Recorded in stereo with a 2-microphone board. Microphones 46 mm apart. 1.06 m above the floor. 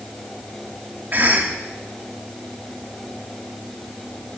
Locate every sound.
1.1 s a cough: 45° right (ahead or behind), 2 m